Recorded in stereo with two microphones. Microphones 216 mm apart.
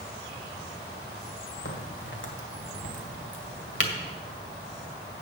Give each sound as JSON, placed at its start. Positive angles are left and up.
{"t": 1.6, "sound": "a crack", "side_deg": 60, "distance_m": 1.9}